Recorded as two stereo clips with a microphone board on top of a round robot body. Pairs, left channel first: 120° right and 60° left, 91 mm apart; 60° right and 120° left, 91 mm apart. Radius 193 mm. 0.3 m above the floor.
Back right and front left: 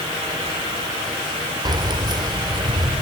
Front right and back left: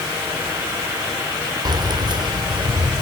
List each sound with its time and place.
1.6 s keys jangling: 90° left, 1.4 m; by 3.0 s 95° left, 2.5 m